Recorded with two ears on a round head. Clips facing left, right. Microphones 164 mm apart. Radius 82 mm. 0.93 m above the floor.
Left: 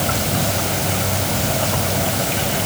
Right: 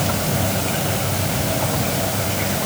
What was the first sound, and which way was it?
Only background noise.